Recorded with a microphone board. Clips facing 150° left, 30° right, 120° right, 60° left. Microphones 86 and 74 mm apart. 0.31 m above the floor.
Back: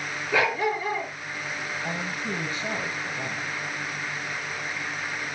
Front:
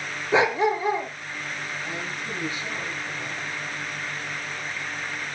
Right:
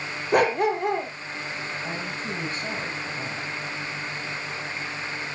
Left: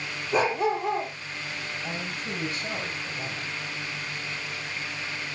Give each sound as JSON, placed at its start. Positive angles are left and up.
{"t": 0.3, "sound": "a dog barking", "azimuth_deg": -95, "distance_m": 2.0}
{"t": 1.8, "sound": "a man speaking", "azimuth_deg": -170, "distance_m": 7.5}